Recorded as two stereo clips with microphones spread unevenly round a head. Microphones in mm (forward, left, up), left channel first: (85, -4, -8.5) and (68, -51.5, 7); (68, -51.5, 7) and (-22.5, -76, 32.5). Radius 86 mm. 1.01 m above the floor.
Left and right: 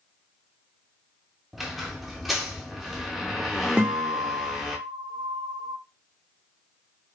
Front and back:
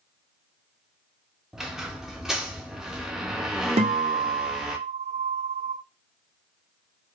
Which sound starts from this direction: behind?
A guitar, at 3.8 s.